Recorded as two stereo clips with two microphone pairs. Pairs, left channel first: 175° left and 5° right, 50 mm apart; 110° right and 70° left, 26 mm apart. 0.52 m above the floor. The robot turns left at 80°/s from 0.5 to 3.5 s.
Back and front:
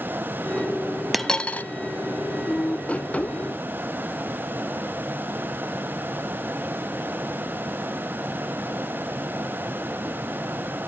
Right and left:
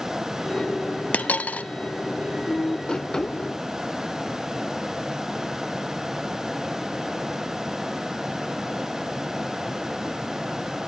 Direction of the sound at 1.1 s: 90° right.